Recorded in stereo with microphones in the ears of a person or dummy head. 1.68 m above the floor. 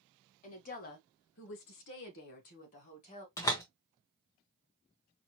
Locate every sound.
0.4 s a woman speaking: 35° left (ahead or behind), 1.2 m
3.4 s a door slam: 15° left (ahead or behind), 0.8 m